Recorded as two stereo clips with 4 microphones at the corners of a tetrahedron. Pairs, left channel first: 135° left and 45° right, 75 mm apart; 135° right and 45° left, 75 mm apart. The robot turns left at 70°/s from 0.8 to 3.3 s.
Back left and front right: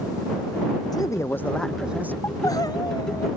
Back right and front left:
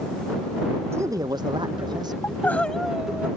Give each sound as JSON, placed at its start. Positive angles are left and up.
{"t": 0.9, "sound": "a man speaking", "azimuth_deg": 100}
{"t": 2.2, "sound": "crying", "azimuth_deg": 180}